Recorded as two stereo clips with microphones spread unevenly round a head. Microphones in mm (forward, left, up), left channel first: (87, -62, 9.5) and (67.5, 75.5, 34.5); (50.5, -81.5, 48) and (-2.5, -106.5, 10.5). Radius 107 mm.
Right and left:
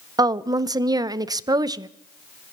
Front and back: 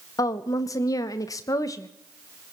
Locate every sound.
0.2 s a woman speaking: 35° left, 0.6 m